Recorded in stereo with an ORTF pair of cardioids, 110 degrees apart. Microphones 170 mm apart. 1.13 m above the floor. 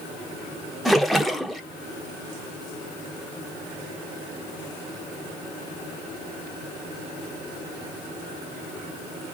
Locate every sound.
0.8 s a splash: straight ahead, 0.6 m